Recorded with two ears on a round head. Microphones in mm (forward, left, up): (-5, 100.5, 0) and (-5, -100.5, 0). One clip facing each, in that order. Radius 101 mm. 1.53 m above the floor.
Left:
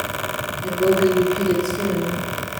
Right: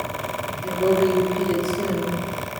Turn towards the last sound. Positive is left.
turn(degrees=5)  # may be behind; listen again after turning